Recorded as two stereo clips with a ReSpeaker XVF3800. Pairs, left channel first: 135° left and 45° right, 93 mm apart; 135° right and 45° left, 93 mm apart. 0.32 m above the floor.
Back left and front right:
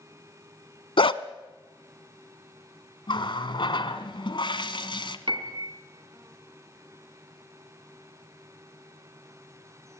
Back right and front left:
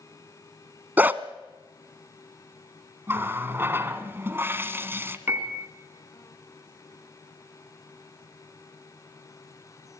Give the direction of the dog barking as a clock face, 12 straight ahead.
8 o'clock.